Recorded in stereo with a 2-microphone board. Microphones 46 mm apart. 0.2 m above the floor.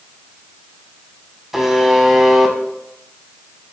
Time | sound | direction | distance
1.5 | a buzzer | 10° right (ahead or behind) | 0.5 m